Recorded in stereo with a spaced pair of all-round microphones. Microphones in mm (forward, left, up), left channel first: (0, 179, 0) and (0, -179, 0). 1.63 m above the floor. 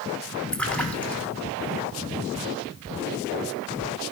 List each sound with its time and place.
0.5 s a splash: 5° left (ahead or behind), 1.8 m